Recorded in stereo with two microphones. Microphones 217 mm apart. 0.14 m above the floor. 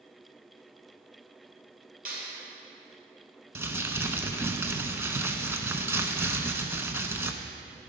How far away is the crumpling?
About 0.6 m.